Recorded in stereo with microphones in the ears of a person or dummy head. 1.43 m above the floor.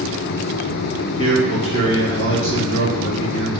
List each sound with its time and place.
1.2 s a man speaking: 65° left (ahead or behind), 2 m